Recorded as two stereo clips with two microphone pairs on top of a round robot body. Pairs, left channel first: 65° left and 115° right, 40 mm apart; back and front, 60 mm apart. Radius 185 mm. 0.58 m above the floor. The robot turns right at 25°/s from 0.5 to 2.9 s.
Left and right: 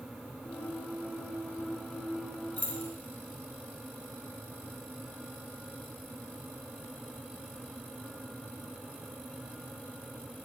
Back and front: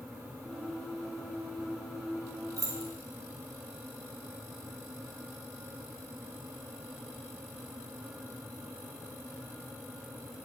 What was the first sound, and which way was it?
Keys jangling, 20° left.